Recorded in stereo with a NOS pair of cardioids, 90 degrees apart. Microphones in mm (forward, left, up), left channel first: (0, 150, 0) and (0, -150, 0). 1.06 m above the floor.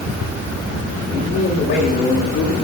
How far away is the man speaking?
About 7 m.